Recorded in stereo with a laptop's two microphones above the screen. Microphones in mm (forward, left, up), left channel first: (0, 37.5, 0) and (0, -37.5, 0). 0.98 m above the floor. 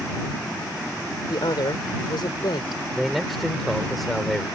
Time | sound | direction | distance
1.3 | a woman speaking | 75° left (ahead or behind) | ?
2.9 | a man speaking | centre (ahead or behind) | ?